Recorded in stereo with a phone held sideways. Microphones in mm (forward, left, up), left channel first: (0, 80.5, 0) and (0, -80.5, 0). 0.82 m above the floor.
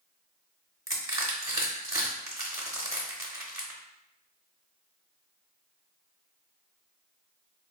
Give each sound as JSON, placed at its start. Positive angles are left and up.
{"t": 0.9, "sound": "crushing", "side_deg": -20, "distance_m": 0.8}